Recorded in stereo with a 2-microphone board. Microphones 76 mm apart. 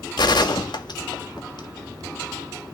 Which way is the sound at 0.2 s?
75° left (ahead or behind).